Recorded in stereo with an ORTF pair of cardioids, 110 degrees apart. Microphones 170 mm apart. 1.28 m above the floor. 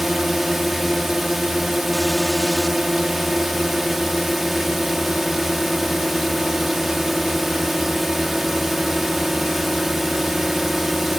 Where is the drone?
Straight ahead.